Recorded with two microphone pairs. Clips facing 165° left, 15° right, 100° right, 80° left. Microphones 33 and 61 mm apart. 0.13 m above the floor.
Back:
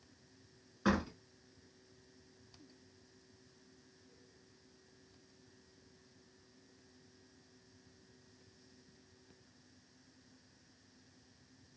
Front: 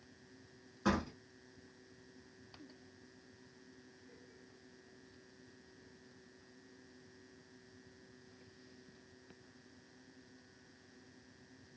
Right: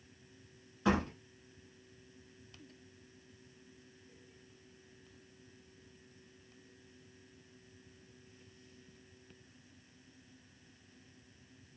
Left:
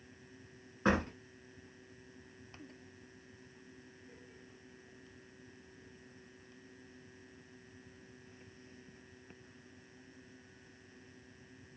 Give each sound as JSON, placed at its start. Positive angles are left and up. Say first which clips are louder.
{"t": 0.8, "sound": "a door slam", "louder": "back 1 dB, even", "azimuth_deg": 100, "distance_m": 1.4}